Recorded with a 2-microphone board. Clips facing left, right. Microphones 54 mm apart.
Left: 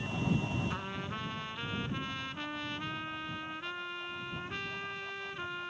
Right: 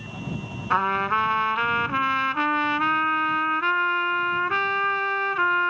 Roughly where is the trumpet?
Right.